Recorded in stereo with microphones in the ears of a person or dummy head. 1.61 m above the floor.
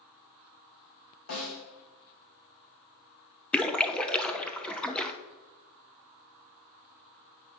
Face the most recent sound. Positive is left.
turn(degrees=10)  # may be behind; listen again after turning